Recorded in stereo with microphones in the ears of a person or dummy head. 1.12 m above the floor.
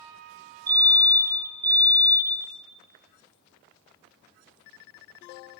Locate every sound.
0.7 s a fire alarm: 25° right (ahead or behind), 3.5 m